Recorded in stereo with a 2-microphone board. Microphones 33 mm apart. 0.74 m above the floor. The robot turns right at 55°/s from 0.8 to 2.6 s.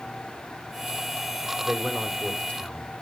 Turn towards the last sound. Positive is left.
turn(degrees=40)